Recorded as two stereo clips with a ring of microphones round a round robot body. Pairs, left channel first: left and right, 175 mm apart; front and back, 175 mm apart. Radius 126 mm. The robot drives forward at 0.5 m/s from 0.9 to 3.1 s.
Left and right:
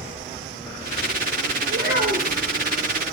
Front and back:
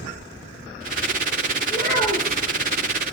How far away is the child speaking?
About 4.5 m.